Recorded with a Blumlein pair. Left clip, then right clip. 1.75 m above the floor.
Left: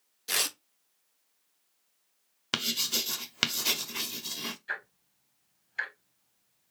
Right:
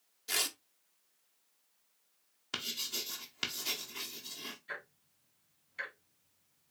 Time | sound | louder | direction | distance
0.3 | tearing paper | left 4 dB | 15° left | 0.5 m
2.5 | writing | left 8 dB | 35° left | 0.7 m
4.7 | ticking | left 8 dB | 60° left | 2 m